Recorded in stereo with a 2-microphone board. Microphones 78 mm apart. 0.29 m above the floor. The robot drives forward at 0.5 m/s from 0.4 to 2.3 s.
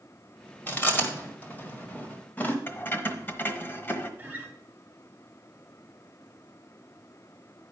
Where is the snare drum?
No snare drum in this recording.